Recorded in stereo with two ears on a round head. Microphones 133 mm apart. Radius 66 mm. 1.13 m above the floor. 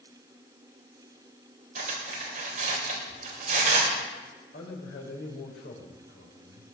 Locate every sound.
1.8 s cutlery clinking: 55° right (ahead or behind), 3 m
4.5 s a man speaking: 85° left, 4 m